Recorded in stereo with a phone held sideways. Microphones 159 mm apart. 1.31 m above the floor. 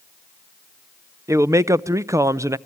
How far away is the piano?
No piano in this recording.